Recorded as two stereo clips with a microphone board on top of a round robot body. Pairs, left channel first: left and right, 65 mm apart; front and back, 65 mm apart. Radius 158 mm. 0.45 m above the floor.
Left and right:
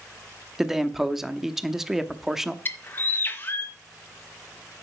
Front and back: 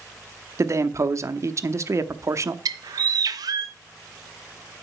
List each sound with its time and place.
0.6 s a man speaking: 170° right, 1.0 m
2.6 s a bird: 150° left, 0.5 m